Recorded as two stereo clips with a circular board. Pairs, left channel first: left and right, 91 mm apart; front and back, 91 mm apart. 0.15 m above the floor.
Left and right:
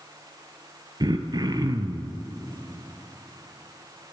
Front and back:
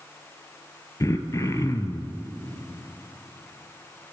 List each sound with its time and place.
1.0 s throat clearing: 55° right, 0.6 m